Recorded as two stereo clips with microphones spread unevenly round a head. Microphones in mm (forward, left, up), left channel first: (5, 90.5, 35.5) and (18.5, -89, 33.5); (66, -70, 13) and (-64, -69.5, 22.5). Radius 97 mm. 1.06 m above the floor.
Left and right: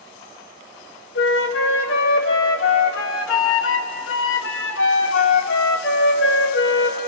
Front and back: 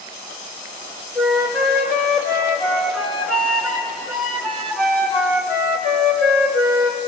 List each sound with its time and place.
1.1 s a flute: 85° left, 2.5 m